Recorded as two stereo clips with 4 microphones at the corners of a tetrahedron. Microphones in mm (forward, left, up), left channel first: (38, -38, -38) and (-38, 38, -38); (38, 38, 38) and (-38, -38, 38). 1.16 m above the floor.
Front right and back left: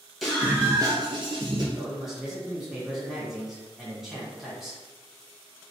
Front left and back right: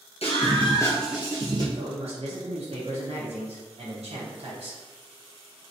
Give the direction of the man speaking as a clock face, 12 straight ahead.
5 o'clock.